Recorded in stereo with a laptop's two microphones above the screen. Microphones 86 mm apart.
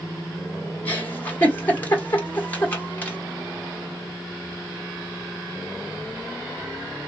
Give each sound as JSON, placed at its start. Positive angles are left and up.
{"t": 0.8, "sound": "a giggle", "side_deg": 20, "distance_m": 1.5}